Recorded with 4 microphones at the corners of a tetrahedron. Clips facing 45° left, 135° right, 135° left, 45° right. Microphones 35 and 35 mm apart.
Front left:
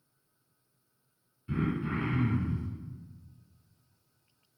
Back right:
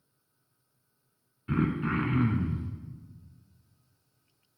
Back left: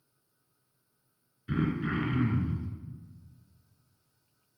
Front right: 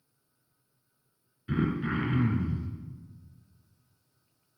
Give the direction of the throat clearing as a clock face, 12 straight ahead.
4 o'clock.